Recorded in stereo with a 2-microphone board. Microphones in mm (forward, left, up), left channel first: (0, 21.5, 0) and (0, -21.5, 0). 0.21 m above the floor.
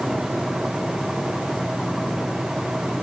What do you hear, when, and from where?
Only background noise.